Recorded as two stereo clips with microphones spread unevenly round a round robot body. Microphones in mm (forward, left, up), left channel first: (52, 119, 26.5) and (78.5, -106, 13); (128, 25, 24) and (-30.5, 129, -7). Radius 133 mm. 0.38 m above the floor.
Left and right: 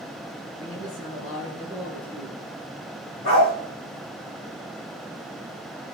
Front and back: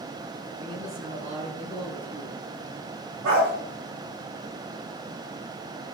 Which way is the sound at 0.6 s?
160° left.